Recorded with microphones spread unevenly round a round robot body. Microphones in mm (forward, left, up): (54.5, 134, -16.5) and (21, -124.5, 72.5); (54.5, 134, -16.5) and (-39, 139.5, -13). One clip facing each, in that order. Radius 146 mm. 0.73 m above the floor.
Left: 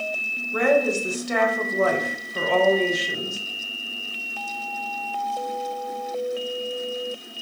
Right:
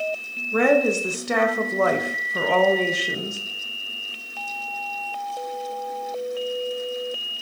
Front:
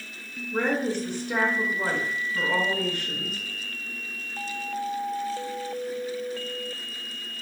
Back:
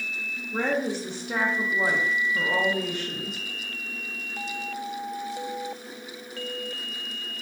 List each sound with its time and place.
0.5 s a woman speaking: 115° right, 0.6 m